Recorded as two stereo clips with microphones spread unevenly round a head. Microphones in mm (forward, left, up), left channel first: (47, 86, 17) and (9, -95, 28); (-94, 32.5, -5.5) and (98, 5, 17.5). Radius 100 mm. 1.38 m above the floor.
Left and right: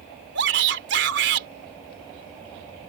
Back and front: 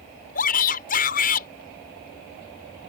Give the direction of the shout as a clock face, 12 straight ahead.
5 o'clock.